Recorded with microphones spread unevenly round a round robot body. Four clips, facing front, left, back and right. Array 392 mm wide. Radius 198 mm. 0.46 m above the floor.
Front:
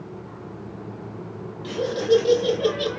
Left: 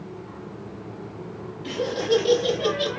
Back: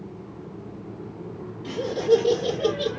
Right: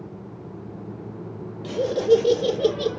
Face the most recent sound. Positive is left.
turn(degrees=-140)